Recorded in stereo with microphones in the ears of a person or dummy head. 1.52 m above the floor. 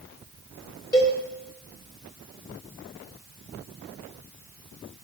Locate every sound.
0.9 s a cowbell: 15° left (ahead or behind), 1.1 m